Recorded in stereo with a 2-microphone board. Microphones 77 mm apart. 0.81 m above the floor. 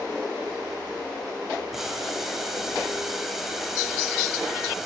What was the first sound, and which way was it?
Boiling, 5° right (ahead or behind).